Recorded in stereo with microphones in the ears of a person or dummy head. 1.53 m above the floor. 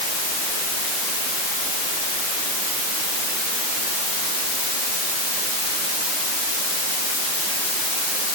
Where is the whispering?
I don't hear whispering.